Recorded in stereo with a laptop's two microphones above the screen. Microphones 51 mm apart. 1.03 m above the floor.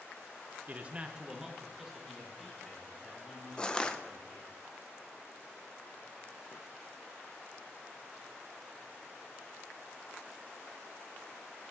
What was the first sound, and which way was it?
A man speaking, 35° right (ahead or behind).